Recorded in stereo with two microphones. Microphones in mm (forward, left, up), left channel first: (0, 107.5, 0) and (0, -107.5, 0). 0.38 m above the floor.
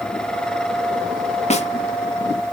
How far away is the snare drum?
About 0.9 m.